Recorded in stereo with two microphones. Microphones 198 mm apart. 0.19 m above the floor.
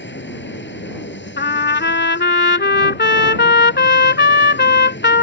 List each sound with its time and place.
0.0 s an aircraft: 65° left (ahead or behind)
1.4 s a trumpet: 65° left (ahead or behind)